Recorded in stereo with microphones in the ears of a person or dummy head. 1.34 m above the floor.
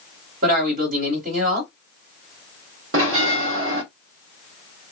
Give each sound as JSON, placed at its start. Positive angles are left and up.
{"t": 0.4, "sound": "a man speaking", "side_deg": -45, "distance_m": 1.7}
{"t": 2.9, "sound": "a bell", "side_deg": -60, "distance_m": 0.9}